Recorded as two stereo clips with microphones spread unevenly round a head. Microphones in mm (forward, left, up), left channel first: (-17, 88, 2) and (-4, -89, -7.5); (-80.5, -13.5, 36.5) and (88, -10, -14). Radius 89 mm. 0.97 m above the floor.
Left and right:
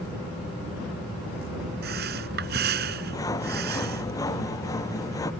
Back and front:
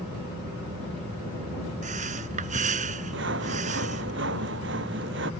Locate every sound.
1.8 s breathing: 45° right
3.1 s sawing: 20° left